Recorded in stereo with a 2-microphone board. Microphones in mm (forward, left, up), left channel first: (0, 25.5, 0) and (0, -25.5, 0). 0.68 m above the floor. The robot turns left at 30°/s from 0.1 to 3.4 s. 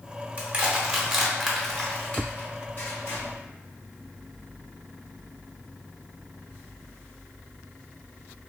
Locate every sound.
0.4 s crushing: 25° right (ahead or behind), 1.0 m; by 3.2 s 55° left (ahead or behind), 1.0 m